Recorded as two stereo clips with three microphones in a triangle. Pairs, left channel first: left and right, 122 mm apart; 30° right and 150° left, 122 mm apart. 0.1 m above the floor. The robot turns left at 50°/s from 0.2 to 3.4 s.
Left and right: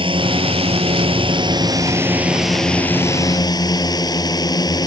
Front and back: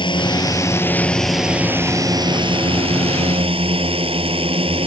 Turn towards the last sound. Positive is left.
turn(degrees=135)